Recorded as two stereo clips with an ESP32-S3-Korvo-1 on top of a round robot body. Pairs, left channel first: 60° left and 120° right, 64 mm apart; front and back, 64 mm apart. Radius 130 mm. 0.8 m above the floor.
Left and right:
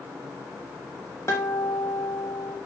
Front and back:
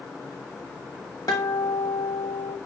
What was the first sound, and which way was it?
A guitar, 10° left.